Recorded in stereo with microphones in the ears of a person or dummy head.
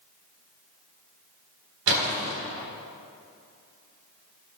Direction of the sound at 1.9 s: 75° right (ahead or behind).